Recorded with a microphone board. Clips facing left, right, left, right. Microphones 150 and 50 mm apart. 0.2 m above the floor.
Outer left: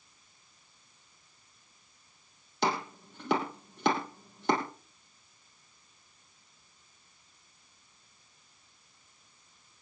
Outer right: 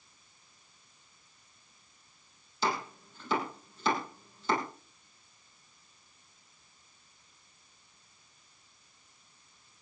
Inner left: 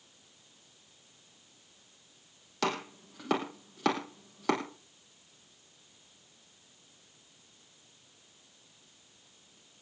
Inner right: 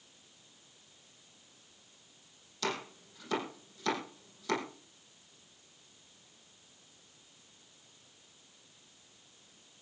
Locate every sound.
2.6 s chopping: 80° left, 4.5 m